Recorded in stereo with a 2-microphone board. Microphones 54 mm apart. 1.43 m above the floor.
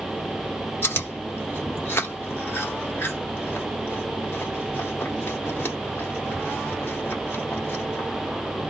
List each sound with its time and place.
0.8 s chewing: 50° left (ahead or behind), 2 m